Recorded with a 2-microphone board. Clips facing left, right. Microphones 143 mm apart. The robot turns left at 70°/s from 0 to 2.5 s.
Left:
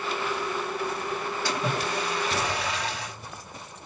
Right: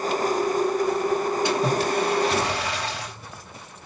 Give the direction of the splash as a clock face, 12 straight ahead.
1 o'clock.